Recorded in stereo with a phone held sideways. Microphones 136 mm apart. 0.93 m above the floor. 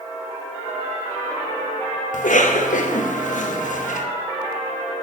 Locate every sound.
2.1 s a cough: 70° left (ahead or behind), 0.9 m